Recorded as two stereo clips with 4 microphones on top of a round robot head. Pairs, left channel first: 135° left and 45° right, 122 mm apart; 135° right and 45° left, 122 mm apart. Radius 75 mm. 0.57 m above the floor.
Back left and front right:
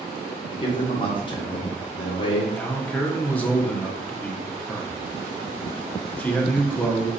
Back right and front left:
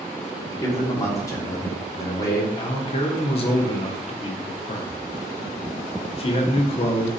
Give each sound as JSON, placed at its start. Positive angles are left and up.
{"t": 0.5, "sound": "a man speaking", "azimuth_deg": 170, "distance_m": 1.3}
{"t": 2.5, "sound": "a man speaking", "azimuth_deg": -150, "distance_m": 0.9}